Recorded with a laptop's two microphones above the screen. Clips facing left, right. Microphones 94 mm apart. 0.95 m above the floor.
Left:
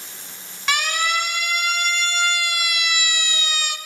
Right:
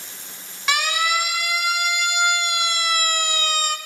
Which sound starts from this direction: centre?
A siren, at 0.7 s.